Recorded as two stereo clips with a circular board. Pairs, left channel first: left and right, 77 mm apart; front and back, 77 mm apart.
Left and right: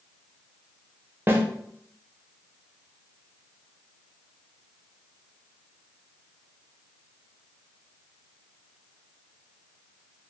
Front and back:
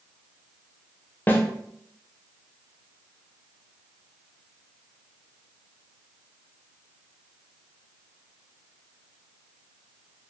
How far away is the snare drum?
About 0.7 m.